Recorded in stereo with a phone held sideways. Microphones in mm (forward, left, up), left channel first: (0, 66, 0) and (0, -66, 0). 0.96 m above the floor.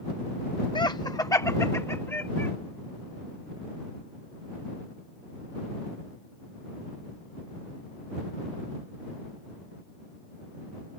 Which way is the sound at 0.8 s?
35° left (ahead or behind).